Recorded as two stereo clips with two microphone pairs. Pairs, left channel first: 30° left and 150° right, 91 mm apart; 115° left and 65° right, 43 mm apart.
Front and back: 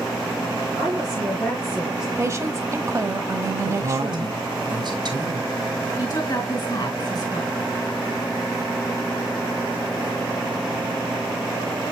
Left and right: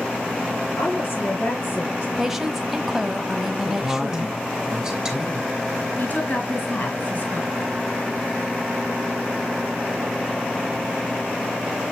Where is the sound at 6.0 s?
70° left, 3.5 m.